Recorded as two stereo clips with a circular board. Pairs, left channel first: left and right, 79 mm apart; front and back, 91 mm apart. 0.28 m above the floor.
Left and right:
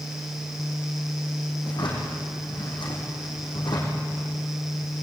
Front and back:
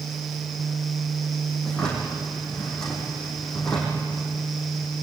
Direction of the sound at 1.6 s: 85° left.